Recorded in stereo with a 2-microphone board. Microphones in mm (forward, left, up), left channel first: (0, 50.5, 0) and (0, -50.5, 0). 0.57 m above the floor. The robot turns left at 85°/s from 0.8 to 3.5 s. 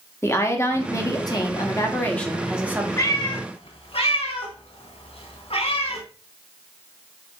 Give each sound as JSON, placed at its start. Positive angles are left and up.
{"t": 0.2, "sound": "a woman speaking", "azimuth_deg": 135, "distance_m": 0.9}
{"t": 3.0, "sound": "a cat meowing", "side_deg": 30, "distance_m": 1.1}